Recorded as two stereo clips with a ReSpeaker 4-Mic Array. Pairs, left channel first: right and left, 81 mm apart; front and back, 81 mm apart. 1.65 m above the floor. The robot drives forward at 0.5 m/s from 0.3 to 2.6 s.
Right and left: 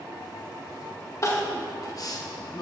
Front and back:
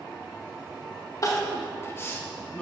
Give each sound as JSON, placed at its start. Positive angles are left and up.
{"t": 1.2, "sound": "crying", "azimuth_deg": -45, "distance_m": 1.5}